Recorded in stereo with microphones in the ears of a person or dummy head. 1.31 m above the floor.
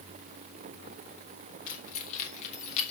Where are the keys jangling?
65° left (ahead or behind), 3.5 m; by 2.9 s 50° left (ahead or behind), 2.5 m.